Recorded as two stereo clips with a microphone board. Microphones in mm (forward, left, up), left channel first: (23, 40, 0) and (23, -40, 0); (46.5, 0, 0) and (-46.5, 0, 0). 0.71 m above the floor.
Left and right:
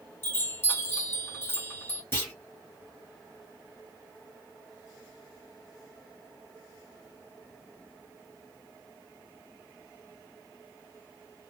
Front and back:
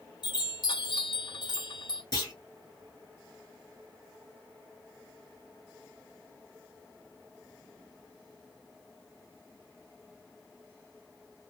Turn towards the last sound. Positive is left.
turn(degrees=35)